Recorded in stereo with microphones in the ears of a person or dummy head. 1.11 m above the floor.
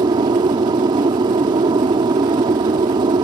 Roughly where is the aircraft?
Right.